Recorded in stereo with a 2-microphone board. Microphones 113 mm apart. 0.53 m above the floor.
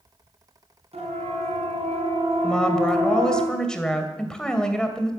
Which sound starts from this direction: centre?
A woman speaking, at 2.4 s.